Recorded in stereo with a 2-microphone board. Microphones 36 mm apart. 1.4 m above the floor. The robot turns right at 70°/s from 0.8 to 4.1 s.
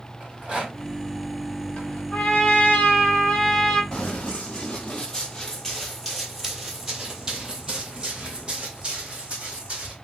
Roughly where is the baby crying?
I don't hear a baby crying.